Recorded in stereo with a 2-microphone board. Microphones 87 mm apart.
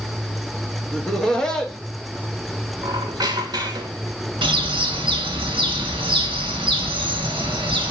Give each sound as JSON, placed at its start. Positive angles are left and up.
{"t": 0.9, "sound": "laughter", "side_deg": 5, "distance_m": 1.0}
{"t": 2.8, "sound": "a squeak", "side_deg": -50, "distance_m": 0.9}
{"t": 4.4, "sound": "a bird", "side_deg": -75, "distance_m": 1.3}